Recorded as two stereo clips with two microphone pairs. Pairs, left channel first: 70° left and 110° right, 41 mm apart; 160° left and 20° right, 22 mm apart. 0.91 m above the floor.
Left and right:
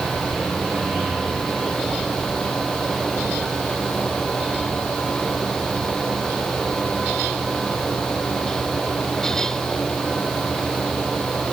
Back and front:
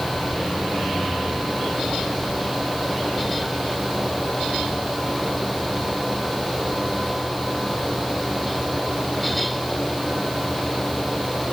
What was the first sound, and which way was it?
Only background noise.